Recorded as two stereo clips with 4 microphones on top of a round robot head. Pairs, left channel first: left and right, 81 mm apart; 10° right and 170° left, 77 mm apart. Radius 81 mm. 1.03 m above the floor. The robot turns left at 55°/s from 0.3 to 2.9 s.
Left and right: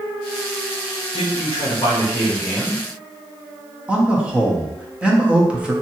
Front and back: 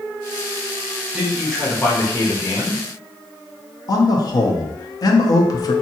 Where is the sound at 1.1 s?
95° left, 1.2 m; by 2.8 s straight ahead, 1.2 m.